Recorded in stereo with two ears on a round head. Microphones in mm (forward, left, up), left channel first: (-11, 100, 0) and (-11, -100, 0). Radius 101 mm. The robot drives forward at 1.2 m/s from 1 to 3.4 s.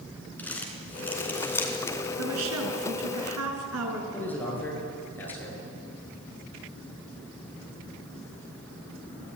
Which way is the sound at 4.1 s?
10° left (ahead or behind).